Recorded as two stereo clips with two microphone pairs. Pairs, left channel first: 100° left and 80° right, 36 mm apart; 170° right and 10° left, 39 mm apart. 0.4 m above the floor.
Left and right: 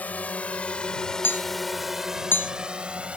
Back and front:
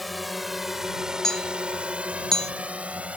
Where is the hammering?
115° left.